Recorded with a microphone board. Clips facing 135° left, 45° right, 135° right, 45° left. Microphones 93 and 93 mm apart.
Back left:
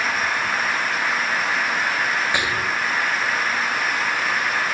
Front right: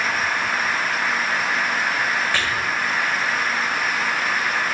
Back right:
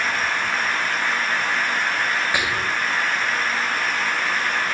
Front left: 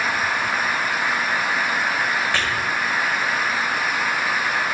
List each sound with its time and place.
2.3 s whispering: 175° left, 1.2 m